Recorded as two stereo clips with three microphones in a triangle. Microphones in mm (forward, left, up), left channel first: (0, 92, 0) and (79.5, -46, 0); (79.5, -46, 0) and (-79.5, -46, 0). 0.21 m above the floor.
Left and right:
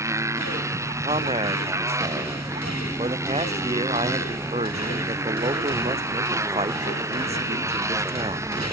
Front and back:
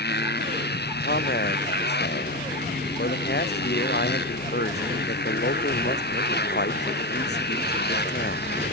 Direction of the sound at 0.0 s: 15° left.